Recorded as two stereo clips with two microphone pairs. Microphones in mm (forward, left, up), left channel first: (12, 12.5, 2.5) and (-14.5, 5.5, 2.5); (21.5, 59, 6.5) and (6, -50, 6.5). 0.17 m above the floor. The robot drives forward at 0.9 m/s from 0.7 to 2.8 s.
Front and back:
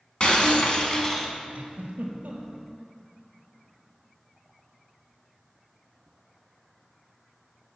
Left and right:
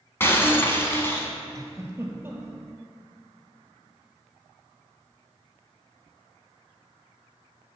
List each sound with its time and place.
0.2 s breaking glass: 30° left, 1.0 m; by 1.3 s 100° left, 0.9 m
1.6 s a giggle: 155° right, 0.8 m; by 2.7 s 170° right, 1.7 m